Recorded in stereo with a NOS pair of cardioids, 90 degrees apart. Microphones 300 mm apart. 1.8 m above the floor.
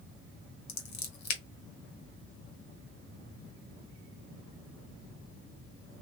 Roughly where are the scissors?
Ahead left.